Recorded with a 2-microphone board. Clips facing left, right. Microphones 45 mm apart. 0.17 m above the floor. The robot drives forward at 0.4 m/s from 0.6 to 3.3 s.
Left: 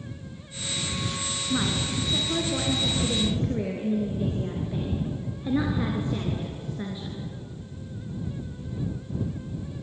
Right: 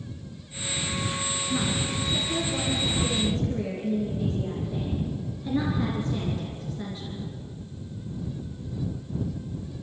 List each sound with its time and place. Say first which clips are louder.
1.5 s a woman speaking: left 2 dB; 25° left (ahead or behind), 3 m; by 7.3 s 20° left (ahead or behind), 3.5 m